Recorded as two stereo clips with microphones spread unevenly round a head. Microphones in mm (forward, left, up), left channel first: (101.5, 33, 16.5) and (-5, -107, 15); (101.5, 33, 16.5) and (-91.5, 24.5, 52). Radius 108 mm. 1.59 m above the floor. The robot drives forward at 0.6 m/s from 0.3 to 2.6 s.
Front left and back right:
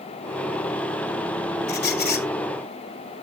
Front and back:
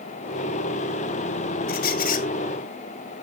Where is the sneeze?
I don't hear a sneeze.